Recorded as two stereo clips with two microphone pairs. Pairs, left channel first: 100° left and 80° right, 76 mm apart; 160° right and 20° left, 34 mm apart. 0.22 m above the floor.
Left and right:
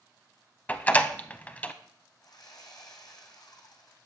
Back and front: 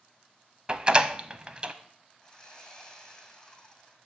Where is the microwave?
No microwave in this recording.